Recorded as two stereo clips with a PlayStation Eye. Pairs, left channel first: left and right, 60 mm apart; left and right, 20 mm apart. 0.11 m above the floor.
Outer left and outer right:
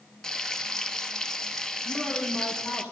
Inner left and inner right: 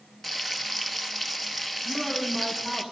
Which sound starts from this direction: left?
A woman speaking, at 1.8 s.